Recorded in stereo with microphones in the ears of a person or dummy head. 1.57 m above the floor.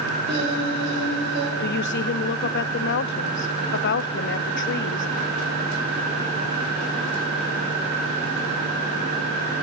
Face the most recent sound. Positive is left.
turn(degrees=55)  # may be behind; listen again after turning